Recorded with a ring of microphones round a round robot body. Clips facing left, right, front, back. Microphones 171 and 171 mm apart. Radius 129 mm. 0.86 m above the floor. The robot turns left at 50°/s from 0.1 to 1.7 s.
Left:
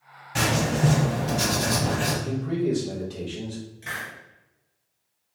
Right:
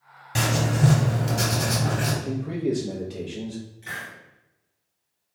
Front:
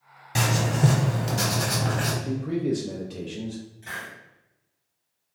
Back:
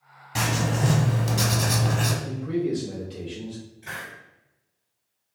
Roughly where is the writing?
Ahead right.